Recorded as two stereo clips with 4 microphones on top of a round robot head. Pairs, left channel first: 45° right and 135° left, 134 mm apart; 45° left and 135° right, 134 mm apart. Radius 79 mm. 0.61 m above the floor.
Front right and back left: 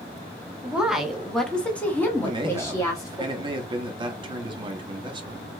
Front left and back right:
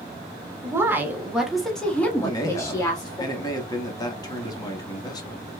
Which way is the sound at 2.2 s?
95° left.